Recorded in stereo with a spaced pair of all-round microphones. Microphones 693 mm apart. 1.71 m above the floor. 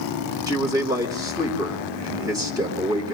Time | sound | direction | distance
0.5 | a man speaking | 5° right (ahead or behind) | 3 m